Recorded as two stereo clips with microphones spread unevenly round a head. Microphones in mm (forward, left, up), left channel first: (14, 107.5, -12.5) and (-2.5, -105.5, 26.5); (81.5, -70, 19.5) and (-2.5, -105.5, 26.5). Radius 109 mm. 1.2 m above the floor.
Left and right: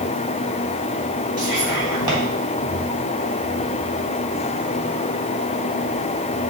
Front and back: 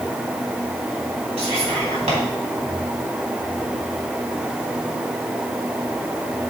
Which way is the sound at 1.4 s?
170° right.